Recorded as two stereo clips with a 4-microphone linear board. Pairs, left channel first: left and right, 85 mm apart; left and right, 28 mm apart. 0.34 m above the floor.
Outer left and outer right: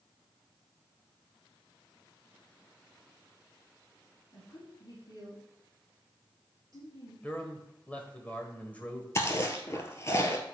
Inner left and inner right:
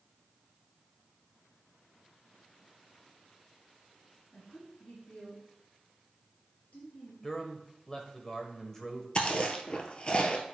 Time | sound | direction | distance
4.3 | a woman speaking | 45° left (ahead or behind) | 4.5 m
7.2 | a man speaking | 20° left (ahead or behind) | 1.5 m
9.2 | chewing | 35° left (ahead or behind) | 1.2 m